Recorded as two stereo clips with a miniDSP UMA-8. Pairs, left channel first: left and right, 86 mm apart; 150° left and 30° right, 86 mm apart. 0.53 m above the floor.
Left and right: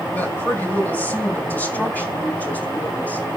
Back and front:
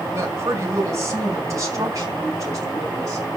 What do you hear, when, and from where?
0.1 s a woman speaking: 25° left, 2 m; by 3.3 s 20° left, 4 m